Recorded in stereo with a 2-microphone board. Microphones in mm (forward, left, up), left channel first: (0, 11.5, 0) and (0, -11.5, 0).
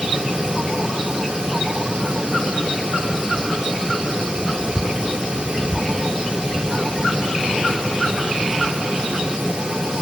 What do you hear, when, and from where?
Only background noise.